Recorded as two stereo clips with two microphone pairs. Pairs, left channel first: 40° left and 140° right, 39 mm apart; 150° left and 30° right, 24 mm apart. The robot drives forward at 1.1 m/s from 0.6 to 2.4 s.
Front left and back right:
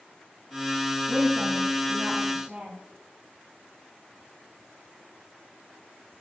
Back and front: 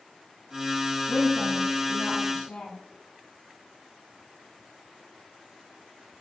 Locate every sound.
1.1 s a woman speaking: 155° left, 3 m; by 2.8 s 165° left, 4 m